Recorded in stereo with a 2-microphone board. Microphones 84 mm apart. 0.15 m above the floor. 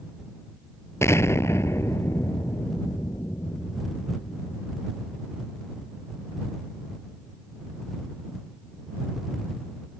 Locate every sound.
1.0 s an explosion: 35° left (ahead or behind)